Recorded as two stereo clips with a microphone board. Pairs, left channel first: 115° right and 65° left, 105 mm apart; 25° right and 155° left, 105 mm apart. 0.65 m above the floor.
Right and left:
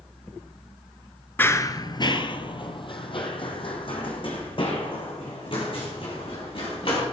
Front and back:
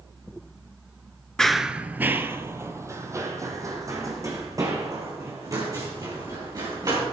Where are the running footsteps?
95° right, 0.6 m; by 7.0 s 145° right, 5 m.